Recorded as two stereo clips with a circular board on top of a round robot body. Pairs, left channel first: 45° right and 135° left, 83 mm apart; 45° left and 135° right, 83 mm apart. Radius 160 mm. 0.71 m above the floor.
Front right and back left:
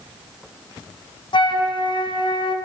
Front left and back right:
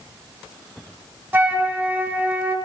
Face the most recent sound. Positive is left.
turn(degrees=-65)